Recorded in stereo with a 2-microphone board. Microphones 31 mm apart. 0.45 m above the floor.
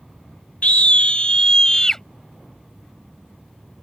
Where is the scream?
45° left (ahead or behind); by 2.0 s 15° left (ahead or behind).